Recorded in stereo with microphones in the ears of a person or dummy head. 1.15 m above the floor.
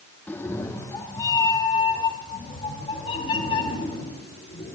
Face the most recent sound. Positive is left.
turn(degrees=35)  # may be behind; listen again after turning